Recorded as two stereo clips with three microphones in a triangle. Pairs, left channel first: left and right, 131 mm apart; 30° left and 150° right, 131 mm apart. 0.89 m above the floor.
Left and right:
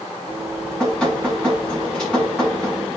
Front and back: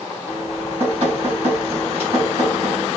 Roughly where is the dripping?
Behind.